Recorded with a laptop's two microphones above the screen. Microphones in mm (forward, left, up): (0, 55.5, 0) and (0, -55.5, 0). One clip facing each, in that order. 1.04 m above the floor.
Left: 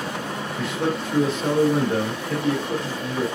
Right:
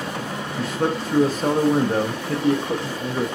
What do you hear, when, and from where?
0.6 s a man speaking: 40° right (ahead or behind), 0.6 m